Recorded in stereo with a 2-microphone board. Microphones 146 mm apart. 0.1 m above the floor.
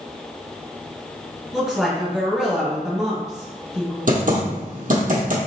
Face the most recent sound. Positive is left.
turn(degrees=-65)  # may be behind; listen again after turning